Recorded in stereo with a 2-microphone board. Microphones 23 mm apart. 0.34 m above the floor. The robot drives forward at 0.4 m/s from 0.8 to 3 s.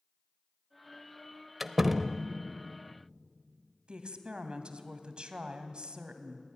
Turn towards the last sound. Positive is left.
turn(degrees=-50)  # may be behind; listen again after turning